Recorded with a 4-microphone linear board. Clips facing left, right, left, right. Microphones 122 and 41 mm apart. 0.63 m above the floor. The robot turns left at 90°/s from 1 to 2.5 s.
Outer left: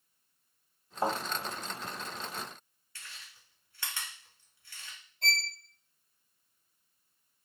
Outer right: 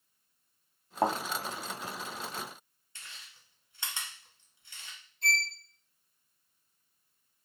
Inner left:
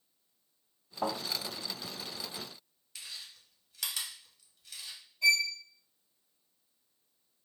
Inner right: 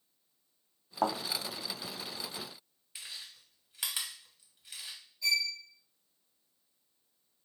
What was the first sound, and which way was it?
A thud, 65° right (ahead or behind).